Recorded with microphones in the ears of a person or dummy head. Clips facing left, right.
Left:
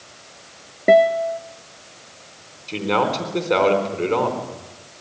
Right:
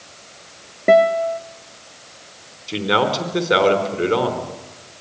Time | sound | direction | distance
0.9 | a guitar | 10° left (ahead or behind) | 0.7 m
2.7 | a man speaking | 5° right (ahead or behind) | 4 m